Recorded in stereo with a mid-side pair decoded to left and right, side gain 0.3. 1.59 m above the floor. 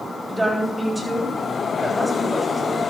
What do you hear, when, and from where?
0.3 s a woman speaking: 15° right, 9 m